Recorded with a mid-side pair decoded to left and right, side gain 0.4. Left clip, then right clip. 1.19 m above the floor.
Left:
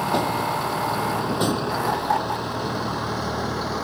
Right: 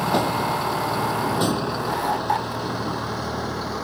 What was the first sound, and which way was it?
A vehicle, 15° right.